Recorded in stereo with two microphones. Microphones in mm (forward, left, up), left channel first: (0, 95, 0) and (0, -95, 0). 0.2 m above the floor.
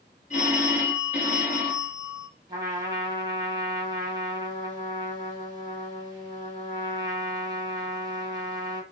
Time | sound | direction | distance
0.3 | a phone ringing | 40° left (ahead or behind) | 1.5 m
2.5 | a trumpet | 20° right (ahead or behind) | 1.1 m